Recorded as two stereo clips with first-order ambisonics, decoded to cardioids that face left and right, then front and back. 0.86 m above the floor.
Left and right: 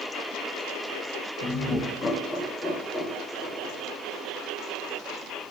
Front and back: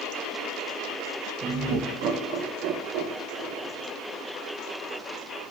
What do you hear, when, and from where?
1.4 s laughter: 140° left, 0.7 m; by 3.9 s 175° right, 1.9 m